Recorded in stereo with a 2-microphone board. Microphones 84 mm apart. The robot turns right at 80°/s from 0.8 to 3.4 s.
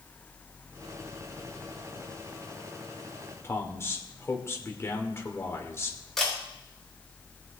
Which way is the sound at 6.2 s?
5° left (ahead or behind).